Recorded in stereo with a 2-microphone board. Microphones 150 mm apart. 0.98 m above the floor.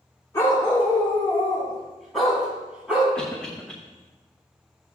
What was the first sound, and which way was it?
A dog barking, 25° left (ahead or behind).